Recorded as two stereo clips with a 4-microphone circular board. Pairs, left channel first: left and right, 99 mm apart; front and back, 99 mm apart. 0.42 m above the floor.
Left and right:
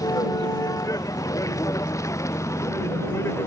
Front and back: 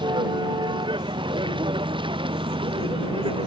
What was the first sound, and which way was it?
A vehicle, 145° left.